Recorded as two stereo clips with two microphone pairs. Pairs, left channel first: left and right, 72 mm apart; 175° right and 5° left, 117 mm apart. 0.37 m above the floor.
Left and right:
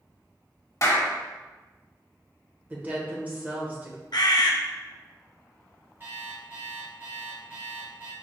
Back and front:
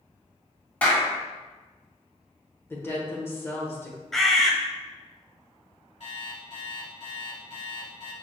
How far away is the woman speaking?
About 1.0 m.